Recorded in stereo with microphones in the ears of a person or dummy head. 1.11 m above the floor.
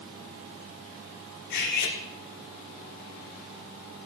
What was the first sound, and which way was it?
Cutlery clinking, 55° left (ahead or behind).